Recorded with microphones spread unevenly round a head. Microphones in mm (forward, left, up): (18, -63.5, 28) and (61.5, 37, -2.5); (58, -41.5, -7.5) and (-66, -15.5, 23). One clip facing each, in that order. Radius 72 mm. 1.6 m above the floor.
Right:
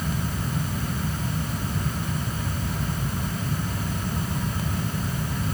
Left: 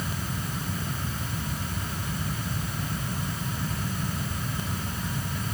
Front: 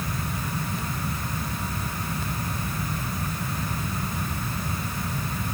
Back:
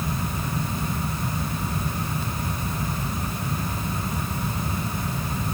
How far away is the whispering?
I don't hear whispering.